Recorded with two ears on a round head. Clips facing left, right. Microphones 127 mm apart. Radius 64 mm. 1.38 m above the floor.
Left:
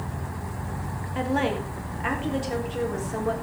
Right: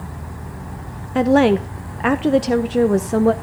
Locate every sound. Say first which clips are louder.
1.1 s a woman speaking: right 12 dB; 70° right (ahead or behind), 0.6 m